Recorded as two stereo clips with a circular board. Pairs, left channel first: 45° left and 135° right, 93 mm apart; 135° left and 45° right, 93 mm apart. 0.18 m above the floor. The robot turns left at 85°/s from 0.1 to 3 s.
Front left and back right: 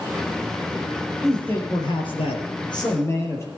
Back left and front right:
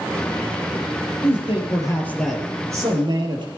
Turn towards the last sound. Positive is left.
turn(degrees=-15)